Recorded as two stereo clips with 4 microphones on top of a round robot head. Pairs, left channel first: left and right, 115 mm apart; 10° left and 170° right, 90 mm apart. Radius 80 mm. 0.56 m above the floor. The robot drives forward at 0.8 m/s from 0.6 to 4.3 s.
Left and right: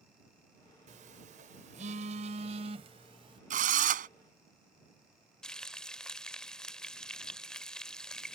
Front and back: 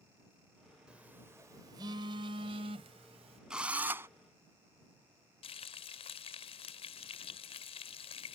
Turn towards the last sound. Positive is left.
turn(degrees=5)